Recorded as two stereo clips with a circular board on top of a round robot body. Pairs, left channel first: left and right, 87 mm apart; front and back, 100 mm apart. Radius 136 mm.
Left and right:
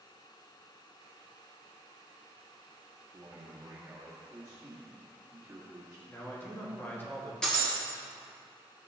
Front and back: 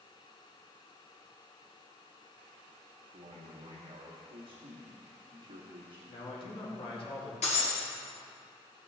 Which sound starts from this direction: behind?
A man speaking, at 3.1 s.